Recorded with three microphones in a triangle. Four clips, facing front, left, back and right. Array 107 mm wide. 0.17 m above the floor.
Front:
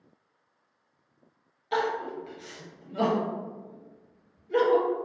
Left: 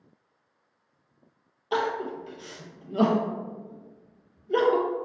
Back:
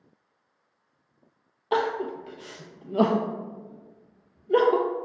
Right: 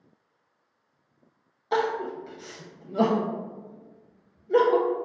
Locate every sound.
1.7 s crying: 165° right, 0.7 m